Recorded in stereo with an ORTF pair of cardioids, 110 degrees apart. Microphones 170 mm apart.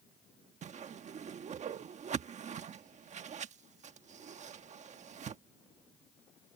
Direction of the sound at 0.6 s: 45° right.